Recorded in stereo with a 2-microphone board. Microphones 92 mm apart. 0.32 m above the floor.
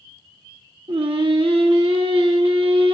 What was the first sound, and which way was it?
Singing, 80° right.